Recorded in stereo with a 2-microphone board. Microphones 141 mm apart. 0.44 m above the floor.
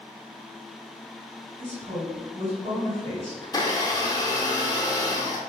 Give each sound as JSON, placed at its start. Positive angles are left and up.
{"t": 1.6, "sound": "a woman speaking", "side_deg": -50, "distance_m": 2.0}
{"t": 3.4, "sound": "a blender", "side_deg": 25, "distance_m": 0.7}